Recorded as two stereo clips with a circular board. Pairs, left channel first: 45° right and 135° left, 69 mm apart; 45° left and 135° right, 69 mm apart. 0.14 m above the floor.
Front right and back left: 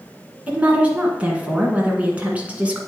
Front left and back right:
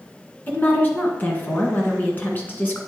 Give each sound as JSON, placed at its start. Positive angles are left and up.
{"t": 0.5, "sound": "a woman speaking", "azimuth_deg": 80, "distance_m": 1.4}